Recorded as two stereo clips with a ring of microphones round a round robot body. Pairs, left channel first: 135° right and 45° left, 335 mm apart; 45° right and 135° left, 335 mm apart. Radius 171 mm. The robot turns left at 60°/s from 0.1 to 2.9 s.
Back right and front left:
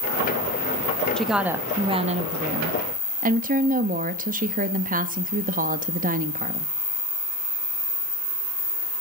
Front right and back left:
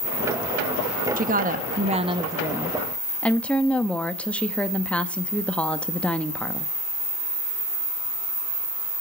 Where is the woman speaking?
140° left, 0.9 m; by 6.7 s 35° left, 0.9 m.